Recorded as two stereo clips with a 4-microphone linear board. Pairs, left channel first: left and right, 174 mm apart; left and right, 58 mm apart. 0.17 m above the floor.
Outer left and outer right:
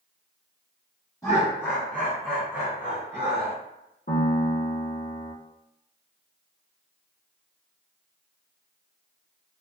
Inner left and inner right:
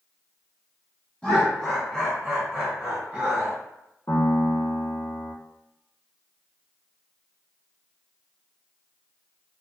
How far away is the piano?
About 1.0 m.